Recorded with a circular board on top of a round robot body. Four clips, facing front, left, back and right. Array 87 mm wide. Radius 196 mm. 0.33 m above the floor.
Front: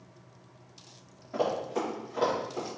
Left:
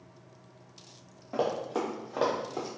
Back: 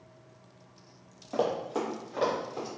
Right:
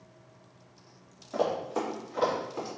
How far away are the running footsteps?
About 0.7 m.